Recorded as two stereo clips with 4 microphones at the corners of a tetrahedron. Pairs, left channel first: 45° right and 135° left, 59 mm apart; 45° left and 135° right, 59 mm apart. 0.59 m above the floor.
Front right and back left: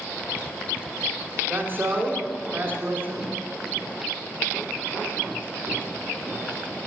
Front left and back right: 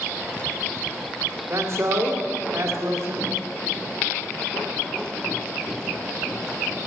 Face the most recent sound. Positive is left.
turn(degrees=-165)